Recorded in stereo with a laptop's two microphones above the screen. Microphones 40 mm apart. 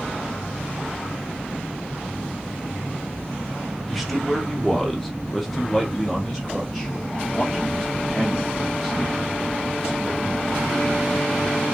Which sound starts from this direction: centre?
A man speaking, at 3.9 s.